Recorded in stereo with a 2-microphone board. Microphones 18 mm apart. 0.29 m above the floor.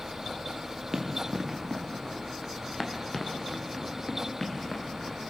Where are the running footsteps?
25° right (ahead or behind), 3 m; by 5.2 s 35° left (ahead or behind), 4.5 m.